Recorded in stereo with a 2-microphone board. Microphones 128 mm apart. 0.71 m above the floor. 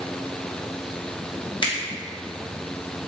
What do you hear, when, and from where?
1.6 s a finger snap: 40° left (ahead or behind), 0.8 m